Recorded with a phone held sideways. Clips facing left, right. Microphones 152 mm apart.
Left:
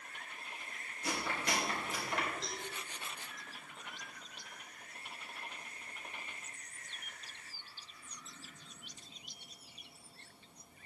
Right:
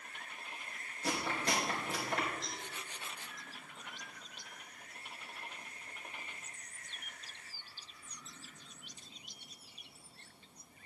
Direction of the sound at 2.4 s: 35° left (ahead or behind).